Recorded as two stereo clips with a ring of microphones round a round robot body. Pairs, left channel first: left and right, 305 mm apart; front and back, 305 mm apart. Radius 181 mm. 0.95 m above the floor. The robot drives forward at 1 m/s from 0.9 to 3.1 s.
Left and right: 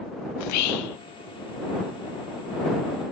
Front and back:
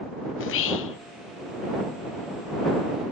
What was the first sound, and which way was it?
Whispering, 55° left.